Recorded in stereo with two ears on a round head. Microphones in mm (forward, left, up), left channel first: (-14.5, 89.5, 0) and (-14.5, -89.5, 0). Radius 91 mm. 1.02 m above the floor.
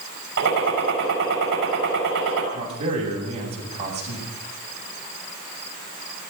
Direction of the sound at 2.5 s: 35° right (ahead or behind).